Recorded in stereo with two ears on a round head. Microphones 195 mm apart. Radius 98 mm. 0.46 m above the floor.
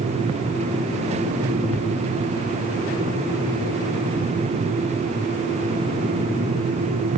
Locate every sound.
Only background noise.